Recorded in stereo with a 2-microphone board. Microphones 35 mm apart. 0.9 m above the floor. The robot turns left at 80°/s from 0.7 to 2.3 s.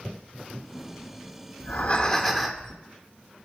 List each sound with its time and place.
1.6 s breathing: 60° left, 1.0 m; by 2.7 s 5° left, 1.0 m